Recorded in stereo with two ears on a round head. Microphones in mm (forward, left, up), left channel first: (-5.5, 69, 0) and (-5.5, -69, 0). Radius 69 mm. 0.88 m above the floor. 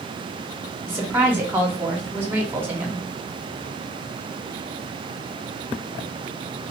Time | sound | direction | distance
0.9 | a woman speaking | 15° right (ahead or behind) | 1.7 m